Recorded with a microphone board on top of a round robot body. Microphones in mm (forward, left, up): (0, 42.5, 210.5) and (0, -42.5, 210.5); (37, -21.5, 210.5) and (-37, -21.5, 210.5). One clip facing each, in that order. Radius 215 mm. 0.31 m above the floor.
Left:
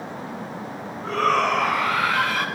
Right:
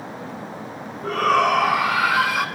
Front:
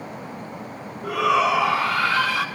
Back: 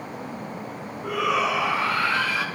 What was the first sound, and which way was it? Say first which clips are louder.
A shout: right 2 dB, front 4 dB; 5° right.